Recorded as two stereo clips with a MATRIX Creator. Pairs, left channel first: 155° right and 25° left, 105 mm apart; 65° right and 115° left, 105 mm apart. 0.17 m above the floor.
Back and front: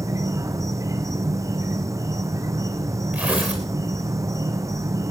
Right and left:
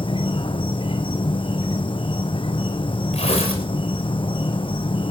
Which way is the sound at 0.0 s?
35° right.